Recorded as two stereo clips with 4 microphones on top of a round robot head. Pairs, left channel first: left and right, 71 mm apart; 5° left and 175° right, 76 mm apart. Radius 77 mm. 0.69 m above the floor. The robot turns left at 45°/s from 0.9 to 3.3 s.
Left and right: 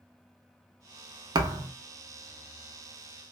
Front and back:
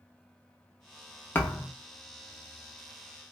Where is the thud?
65° right, 0.6 m; by 1.7 s 80° right, 0.6 m.